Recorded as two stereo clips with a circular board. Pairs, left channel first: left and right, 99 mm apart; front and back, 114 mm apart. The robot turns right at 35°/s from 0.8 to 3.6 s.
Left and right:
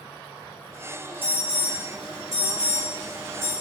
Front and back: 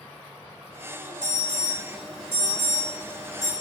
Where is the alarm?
100° left, 1.6 m; by 3.5 s straight behind, 1.6 m.